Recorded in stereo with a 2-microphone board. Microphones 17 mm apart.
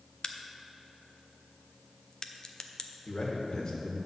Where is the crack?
45° left (ahead or behind), 0.5 m.